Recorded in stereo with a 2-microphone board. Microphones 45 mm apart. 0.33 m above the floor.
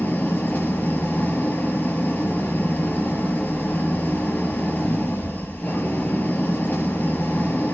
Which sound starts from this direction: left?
An engine running, at 0.0 s.